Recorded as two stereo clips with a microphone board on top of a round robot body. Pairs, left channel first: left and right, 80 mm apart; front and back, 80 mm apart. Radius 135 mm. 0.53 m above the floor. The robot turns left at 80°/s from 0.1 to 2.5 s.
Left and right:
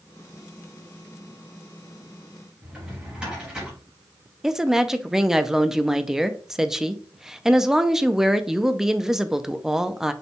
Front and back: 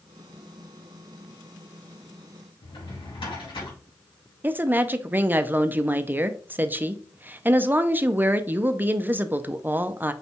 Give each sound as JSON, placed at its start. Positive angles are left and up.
{"t": 2.6, "sound": "a drawer", "azimuth_deg": -10, "distance_m": 2.5}
{"t": 4.4, "sound": "a woman speaking", "azimuth_deg": -165, "distance_m": 0.6}